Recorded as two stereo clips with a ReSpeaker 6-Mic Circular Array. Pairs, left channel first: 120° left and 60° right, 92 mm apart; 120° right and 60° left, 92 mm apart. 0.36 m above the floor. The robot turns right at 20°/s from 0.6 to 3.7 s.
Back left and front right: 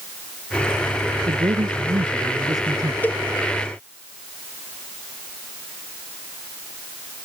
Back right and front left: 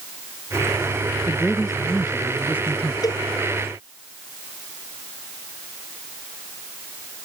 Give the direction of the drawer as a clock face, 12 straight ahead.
No drawer in this recording.